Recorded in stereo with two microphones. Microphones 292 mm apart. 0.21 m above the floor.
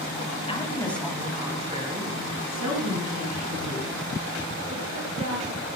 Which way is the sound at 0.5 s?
20° left (ahead or behind).